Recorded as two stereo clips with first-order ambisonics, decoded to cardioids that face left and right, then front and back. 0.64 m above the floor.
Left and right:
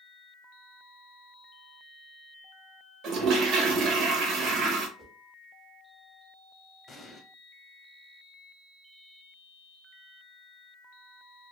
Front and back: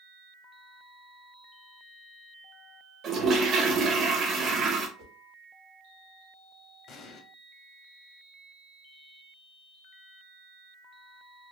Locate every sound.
3.0 s a toilet flushing: 125° right, 0.7 m
5.0 s a whoosh: 160° right, 0.9 m
6.9 s an explosion: 25° left, 0.5 m